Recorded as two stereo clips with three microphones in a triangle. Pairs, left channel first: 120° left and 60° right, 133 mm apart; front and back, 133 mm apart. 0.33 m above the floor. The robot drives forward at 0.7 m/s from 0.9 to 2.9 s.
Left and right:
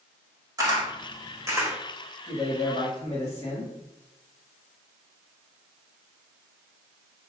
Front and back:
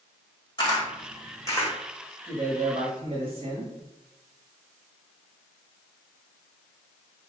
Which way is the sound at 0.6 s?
10° right.